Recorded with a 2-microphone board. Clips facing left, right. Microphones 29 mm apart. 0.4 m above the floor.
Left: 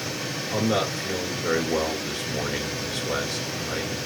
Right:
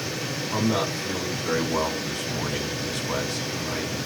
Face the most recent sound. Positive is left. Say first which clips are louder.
# left 1 dB
turn(degrees=35)  # may be behind; listen again after turning